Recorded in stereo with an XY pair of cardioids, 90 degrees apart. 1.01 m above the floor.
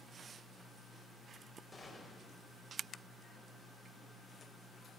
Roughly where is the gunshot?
Ahead.